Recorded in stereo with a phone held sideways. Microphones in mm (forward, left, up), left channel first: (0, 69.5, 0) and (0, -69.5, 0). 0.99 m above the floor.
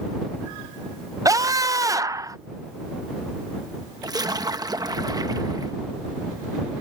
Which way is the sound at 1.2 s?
25° right (ahead or behind).